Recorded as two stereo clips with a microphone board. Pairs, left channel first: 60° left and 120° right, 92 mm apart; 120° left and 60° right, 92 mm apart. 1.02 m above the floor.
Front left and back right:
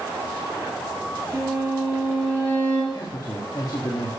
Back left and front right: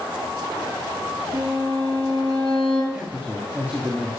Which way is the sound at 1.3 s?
20° right.